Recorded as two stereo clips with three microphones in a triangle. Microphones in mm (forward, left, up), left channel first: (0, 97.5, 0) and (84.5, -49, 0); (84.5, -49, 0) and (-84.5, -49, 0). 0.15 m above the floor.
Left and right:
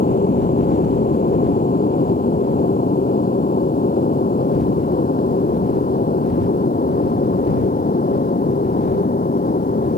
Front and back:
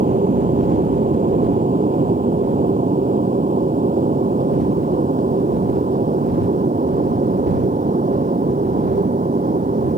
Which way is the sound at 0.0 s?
145° left.